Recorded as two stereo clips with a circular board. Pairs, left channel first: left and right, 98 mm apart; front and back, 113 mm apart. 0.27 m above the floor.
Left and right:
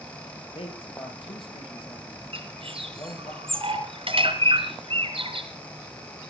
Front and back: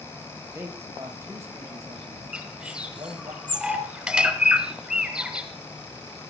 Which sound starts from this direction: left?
A man speaking, at 0.6 s.